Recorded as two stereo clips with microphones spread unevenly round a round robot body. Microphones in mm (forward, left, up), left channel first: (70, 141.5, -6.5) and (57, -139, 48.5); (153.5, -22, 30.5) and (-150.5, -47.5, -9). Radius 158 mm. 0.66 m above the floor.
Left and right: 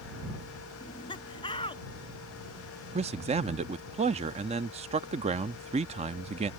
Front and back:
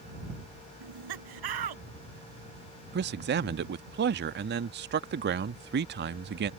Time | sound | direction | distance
0.8 | laughter | 165° left | ?
2.9 | a man speaking | 165° right | ?